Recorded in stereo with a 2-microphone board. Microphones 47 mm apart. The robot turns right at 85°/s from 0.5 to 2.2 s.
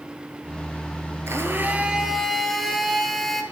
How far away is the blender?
About 1.4 m.